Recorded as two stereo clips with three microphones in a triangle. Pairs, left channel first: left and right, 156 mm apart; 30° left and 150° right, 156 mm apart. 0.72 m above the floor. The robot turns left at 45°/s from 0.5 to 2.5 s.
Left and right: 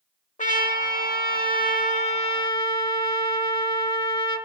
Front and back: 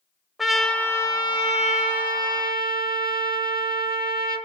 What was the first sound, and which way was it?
A trumpet, 120° left.